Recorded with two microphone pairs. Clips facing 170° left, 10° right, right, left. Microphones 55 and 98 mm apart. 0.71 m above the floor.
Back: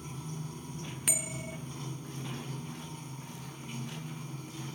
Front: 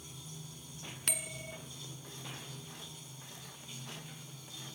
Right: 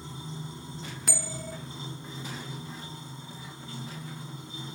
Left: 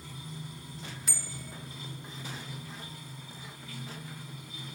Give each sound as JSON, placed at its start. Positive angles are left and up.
{"t": 0.0, "sound": "running water", "azimuth_deg": -150, "distance_m": 1.0}
{"t": 1.1, "sound": "a bell", "azimuth_deg": -105, "distance_m": 0.8}